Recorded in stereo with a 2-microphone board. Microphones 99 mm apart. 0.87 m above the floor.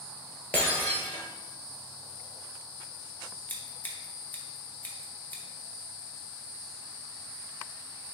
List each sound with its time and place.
0.5 s breaking glass: 20° left (ahead or behind), 1.2 m
3.5 s scissors: 15° left (ahead or behind), 0.7 m